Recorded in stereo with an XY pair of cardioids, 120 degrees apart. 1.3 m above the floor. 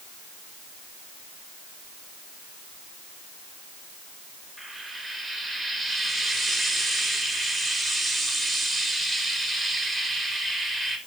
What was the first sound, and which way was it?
Frying, 15° right.